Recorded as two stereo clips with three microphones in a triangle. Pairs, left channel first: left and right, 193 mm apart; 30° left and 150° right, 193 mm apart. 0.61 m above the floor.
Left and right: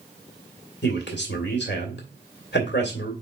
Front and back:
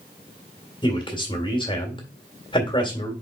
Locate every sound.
0.8 s a man speaking: 90° left, 1.8 m